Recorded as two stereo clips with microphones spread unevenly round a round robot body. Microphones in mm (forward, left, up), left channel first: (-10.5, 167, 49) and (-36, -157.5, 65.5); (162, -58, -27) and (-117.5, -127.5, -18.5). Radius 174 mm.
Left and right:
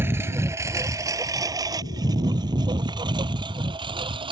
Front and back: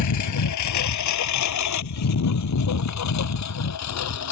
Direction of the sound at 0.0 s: 10° right.